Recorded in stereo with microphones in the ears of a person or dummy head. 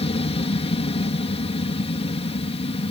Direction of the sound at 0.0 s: 25° left (ahead or behind).